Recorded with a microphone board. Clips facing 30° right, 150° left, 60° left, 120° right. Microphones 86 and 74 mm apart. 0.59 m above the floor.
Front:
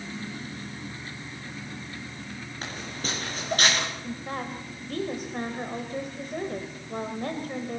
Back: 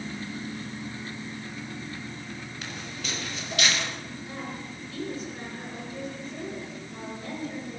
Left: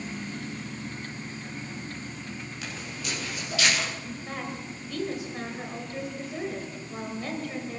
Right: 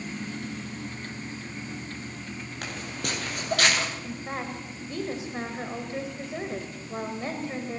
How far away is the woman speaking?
About 2.5 m.